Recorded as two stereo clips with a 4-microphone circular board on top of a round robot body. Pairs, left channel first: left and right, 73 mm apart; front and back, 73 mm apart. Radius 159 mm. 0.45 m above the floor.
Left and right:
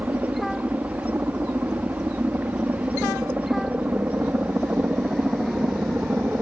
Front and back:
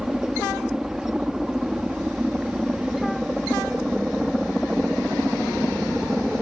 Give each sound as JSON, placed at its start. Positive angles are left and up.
{"t": 0.0, "sound": "a helicopter", "azimuth_deg": -110}